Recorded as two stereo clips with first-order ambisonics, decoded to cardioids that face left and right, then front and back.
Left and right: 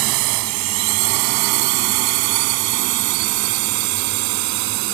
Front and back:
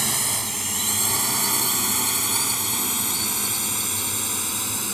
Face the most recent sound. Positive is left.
turn(degrees=-95)